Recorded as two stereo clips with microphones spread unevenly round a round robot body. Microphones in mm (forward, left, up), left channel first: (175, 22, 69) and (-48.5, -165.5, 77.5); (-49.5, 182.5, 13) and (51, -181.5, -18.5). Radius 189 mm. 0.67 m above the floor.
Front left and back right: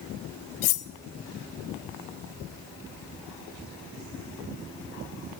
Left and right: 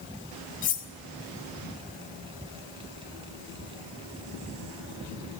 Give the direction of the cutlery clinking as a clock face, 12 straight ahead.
11 o'clock.